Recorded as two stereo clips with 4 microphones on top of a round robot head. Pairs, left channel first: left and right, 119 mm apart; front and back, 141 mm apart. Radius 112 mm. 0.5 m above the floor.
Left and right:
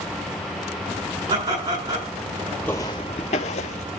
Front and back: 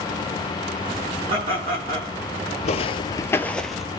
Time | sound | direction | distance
1.3 | laughter | 125° right | 7.5 m
2.6 | footsteps | 10° left | 0.6 m